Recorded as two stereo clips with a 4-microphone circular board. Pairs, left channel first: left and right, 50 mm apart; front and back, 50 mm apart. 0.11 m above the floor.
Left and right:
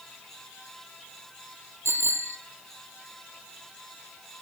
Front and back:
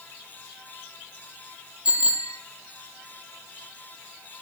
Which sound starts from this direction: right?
A bicycle bell, at 1.9 s.